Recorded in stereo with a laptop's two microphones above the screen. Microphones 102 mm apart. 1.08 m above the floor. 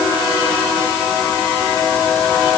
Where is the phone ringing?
I don't hear a phone ringing.